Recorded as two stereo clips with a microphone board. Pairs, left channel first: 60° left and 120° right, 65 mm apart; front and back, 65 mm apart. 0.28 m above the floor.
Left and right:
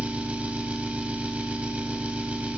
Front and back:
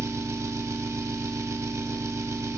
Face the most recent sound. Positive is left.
turn(degrees=175)